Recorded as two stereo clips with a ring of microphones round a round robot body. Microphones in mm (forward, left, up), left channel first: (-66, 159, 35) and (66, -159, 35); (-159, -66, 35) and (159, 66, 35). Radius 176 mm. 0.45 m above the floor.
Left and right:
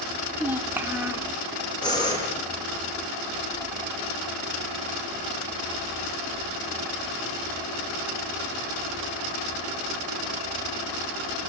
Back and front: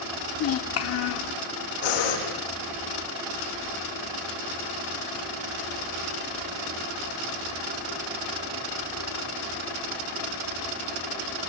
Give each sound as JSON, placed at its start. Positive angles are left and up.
{"t": 0.3, "sound": "a child speaking", "azimuth_deg": -150, "distance_m": 0.6}
{"t": 1.8, "sound": "breathing", "azimuth_deg": -170, "distance_m": 7.0}